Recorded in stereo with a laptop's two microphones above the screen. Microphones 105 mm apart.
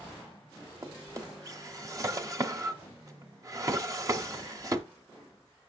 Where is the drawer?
35° right (ahead or behind), 0.9 m.